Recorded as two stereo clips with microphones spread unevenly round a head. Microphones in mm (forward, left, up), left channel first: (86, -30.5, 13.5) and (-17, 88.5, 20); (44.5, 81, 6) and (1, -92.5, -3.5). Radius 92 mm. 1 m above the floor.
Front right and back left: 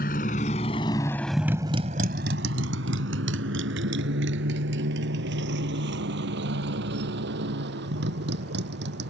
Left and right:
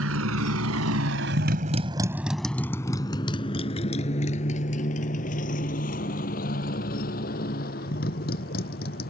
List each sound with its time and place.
0.0 s a motorcycle: 95° right; by 9.1 s 120° left